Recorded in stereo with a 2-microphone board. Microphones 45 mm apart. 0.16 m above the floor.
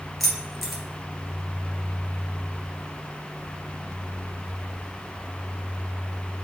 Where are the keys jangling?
Centre (ahead or behind), 1.9 m.